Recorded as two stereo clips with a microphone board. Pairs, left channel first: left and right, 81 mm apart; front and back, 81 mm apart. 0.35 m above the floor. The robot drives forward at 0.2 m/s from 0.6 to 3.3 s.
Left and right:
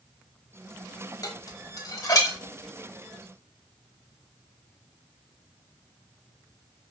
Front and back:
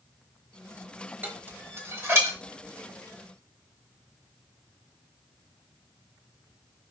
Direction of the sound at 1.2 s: 120° left.